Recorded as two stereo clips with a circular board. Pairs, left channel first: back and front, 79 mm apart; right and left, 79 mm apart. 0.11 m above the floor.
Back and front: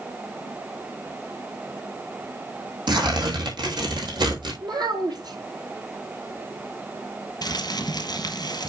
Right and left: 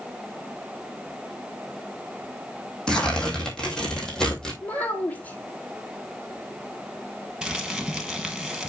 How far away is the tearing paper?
About 2.5 m.